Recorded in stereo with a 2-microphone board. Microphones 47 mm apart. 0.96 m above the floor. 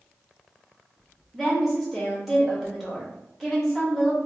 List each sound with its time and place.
1.3 s a woman speaking: 5° right (ahead or behind), 1.5 m